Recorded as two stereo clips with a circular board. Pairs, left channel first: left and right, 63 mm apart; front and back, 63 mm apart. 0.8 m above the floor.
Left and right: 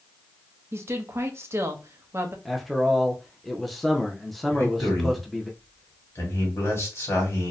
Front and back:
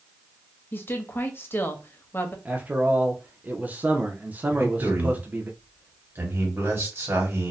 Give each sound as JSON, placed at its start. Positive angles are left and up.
{"t": 0.7, "sound": "a woman speaking", "azimuth_deg": -50, "distance_m": 0.7}
{"t": 2.5, "sound": "a man speaking", "azimuth_deg": 180, "distance_m": 0.5}
{"t": 4.5, "sound": "a man speaking", "azimuth_deg": 135, "distance_m": 1.6}